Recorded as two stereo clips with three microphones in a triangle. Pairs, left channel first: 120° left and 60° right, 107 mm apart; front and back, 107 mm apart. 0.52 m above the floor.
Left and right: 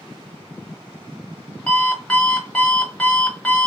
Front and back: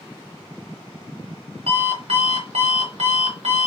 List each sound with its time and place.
1.7 s an alarm clock: 160° right, 1.0 m